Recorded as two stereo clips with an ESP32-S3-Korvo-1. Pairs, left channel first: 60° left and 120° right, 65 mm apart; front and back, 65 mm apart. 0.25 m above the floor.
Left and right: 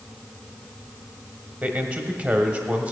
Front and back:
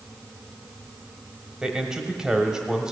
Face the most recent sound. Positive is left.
turn(degrees=-120)